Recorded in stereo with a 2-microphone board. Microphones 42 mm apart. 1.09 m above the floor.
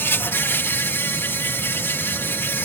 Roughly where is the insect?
Left.